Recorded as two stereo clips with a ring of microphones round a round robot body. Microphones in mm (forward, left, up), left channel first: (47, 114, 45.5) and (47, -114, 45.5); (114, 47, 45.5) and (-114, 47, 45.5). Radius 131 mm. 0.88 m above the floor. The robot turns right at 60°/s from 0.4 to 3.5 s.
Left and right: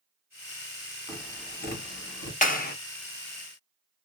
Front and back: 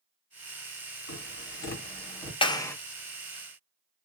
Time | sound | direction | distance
1.1 | tapping | 10° left | 1.8 m
2.4 | a clap | 55° left | 0.7 m